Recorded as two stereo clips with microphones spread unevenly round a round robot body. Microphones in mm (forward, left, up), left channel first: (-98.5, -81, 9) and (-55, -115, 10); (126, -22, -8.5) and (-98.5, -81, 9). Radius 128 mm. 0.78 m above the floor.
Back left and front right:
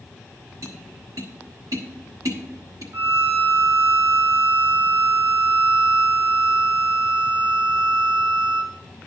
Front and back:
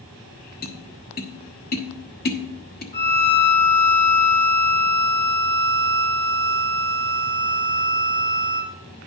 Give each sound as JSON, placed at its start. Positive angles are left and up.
{"t": 0.6, "sound": "tapping", "azimuth_deg": -30, "distance_m": 1.1}
{"t": 2.9, "sound": "a violin", "azimuth_deg": -20, "distance_m": 1.4}